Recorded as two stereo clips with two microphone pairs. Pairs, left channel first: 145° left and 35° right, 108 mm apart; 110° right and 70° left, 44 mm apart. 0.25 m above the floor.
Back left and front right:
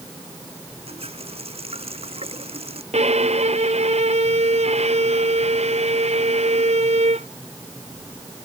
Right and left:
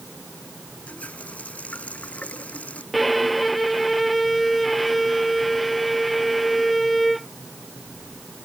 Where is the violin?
25° right.